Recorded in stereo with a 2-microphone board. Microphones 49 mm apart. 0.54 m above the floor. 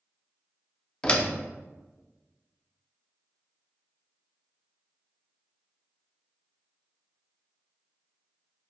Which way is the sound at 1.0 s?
20° left (ahead or behind).